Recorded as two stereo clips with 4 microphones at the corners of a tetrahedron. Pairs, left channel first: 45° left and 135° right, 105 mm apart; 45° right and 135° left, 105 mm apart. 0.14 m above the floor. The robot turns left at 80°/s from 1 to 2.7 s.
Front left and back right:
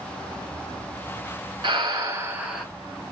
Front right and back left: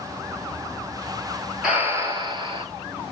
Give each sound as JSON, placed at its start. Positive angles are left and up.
{"t": 1.6, "sound": "breathing", "azimuth_deg": -145, "distance_m": 1.4}